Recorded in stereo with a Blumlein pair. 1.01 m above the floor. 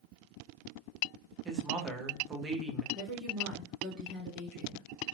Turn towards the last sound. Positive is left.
turn(degrees=0)